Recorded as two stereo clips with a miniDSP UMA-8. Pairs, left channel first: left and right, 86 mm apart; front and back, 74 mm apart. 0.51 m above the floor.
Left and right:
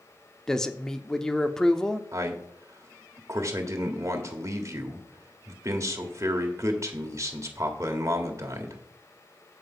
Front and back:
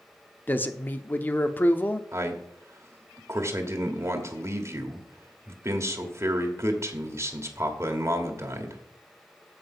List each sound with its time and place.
0.5 s a man speaking: 15° left, 0.7 m
2.1 s a man speaking: 140° right, 1.5 m